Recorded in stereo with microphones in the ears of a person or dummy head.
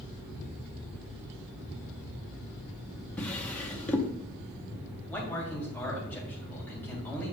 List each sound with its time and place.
3.2 s a drawer: 5° left (ahead or behind), 0.9 m
5.1 s a man speaking: 10° left (ahead or behind), 3 m